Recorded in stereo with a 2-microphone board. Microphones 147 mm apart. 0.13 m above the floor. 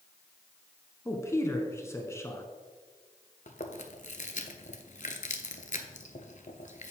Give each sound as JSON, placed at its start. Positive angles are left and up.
{"t": 1.1, "sound": "a man speaking", "side_deg": 20, "distance_m": 1.1}
{"t": 3.5, "sound": "chewing", "side_deg": 60, "distance_m": 0.8}